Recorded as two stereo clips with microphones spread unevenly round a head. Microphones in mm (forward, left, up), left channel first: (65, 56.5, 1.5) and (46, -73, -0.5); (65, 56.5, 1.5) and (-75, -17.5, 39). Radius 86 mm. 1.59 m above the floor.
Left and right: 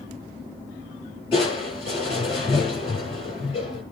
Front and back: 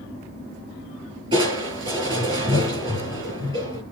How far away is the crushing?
About 8 m.